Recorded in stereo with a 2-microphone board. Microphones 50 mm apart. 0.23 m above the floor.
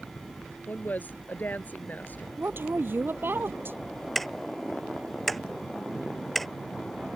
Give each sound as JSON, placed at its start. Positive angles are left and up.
{"t": 0.7, "sound": "a woman speaking", "side_deg": 35}
{"t": 2.4, "sound": "a woman speaking", "side_deg": -50}
{"t": 4.2, "sound": "ticking", "side_deg": 0}